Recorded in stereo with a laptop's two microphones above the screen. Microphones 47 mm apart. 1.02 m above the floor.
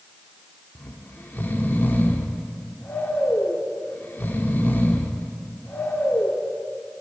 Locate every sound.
0.8 s snoring: 45° left (ahead or behind), 1.5 m